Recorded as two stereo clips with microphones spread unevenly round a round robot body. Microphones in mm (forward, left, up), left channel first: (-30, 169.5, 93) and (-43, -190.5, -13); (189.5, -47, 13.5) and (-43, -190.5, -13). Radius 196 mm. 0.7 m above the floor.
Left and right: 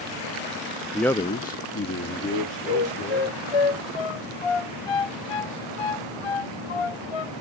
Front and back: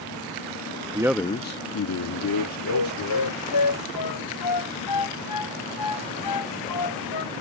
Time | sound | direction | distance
0.9 | a man speaking | 135° right | ?
2.3 | a flute | 70° left | ?